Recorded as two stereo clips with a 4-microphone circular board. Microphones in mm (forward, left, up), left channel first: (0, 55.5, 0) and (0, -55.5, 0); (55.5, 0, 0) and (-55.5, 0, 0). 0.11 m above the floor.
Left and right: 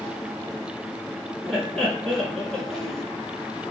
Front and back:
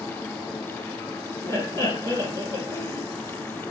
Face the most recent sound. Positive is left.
turn(degrees=10)